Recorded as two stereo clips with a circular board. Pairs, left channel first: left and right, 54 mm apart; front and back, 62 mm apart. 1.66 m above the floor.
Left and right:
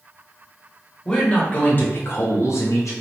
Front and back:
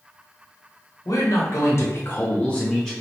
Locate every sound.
1.1 s a man speaking: 15° left, 0.9 m; by 2.9 s 85° left, 0.8 m